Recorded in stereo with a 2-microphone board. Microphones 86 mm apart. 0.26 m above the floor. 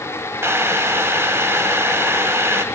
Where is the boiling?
30° right (ahead or behind), 1.2 m.